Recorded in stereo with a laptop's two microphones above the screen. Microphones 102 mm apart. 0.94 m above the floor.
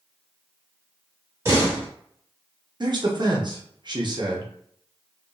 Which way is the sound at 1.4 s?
25° right (ahead or behind).